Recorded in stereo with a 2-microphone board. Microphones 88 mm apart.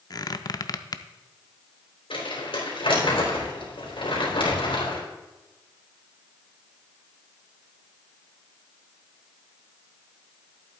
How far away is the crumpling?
About 3.5 m.